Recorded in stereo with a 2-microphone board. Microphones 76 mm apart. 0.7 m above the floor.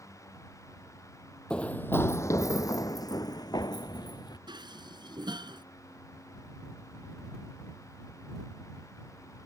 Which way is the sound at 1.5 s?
10° left (ahead or behind).